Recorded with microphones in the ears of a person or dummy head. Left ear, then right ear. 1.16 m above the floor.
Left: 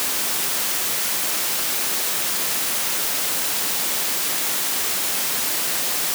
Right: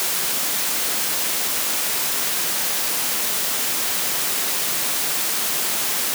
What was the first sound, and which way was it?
Only background noise.